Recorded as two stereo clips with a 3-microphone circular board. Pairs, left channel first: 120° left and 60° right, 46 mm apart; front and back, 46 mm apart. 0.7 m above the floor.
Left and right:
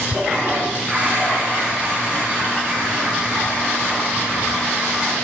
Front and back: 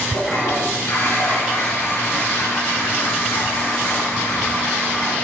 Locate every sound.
0.1 s a toilet flushing: straight ahead, 9 m